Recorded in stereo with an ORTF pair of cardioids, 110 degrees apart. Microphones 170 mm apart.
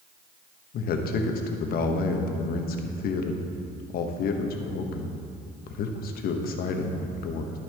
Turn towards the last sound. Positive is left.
turn(degrees=60)